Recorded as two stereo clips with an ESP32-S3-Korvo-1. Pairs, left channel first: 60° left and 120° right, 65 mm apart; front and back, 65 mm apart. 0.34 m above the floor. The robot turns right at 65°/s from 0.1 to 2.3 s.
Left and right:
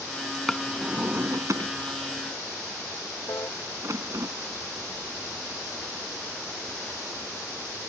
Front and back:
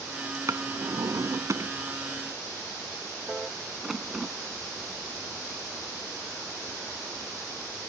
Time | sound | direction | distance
0.5 | a drawer | 145° left | ?
3.3 | a piano | 95° left | ?